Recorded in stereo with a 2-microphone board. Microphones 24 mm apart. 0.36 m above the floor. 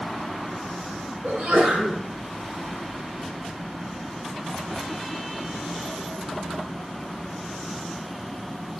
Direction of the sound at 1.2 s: 70° right (ahead or behind).